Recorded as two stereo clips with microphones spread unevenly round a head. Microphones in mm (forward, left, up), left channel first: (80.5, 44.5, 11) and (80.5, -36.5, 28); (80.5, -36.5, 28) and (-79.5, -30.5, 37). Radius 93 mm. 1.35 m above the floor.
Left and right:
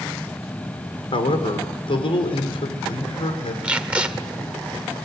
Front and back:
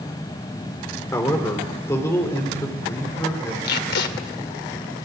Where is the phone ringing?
No phone ringing in this recording.